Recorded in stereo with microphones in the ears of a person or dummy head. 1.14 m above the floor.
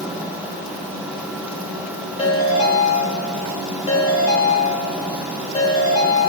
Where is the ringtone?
30° left (ahead or behind), 1.3 m.